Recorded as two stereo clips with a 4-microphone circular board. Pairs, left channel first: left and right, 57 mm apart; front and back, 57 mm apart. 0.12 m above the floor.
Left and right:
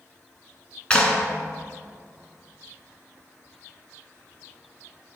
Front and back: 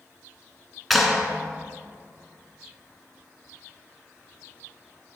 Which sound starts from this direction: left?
A clap, at 0.9 s.